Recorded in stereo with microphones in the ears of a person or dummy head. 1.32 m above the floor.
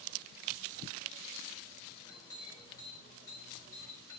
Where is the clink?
20° left (ahead or behind), 4 m.